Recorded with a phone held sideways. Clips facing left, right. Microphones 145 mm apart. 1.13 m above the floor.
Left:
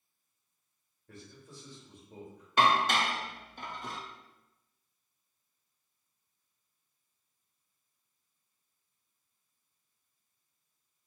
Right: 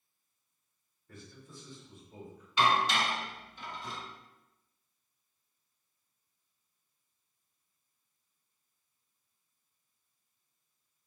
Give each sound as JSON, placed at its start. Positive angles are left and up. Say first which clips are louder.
{"t": 1.1, "sound": "a man speaking", "louder": "left 1 dB", "side_deg": 75, "distance_m": 1.8}
{"t": 2.6, "sound": "dishes clattering", "louder": "left 2 dB", "side_deg": 55, "distance_m": 0.5}